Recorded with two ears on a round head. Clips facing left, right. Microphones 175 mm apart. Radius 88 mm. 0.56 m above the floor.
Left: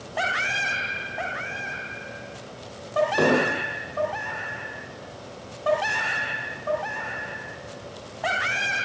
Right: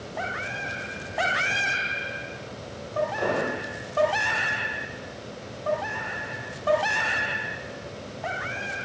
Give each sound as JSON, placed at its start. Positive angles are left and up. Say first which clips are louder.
{"t": 3.2, "sound": "an explosion", "louder": "left 5 dB", "side_deg": 75, "distance_m": 7.5}